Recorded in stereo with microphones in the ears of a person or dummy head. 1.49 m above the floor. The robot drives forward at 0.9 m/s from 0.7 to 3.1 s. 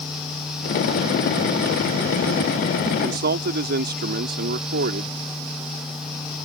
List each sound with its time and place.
2.9 s a man speaking: 65° right (ahead or behind); by 5.2 s 60° right (ahead or behind)